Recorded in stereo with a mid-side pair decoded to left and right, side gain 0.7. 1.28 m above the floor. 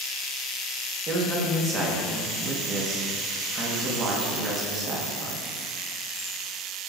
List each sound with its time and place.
1.1 s a man speaking: 35° right, 1.0 m